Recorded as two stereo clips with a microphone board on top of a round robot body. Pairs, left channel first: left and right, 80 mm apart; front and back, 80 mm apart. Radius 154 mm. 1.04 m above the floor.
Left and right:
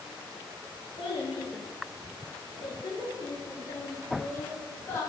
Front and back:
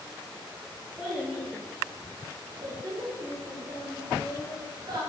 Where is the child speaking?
100° left, 2.0 m; by 5.1 s 150° left, 3 m.